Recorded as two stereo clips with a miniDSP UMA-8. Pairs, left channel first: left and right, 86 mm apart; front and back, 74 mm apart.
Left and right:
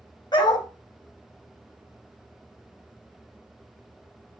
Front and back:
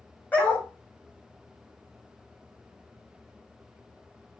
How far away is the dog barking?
About 3 m.